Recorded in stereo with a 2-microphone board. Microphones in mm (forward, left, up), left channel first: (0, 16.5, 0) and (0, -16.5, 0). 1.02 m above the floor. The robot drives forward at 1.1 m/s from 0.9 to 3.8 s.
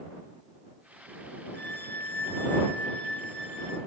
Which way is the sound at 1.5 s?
55° left (ahead or behind).